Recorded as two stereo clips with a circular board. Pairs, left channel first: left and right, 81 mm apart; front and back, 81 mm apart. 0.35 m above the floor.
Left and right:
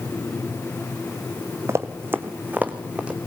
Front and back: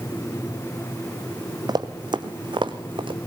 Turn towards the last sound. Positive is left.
turn(degrees=-165)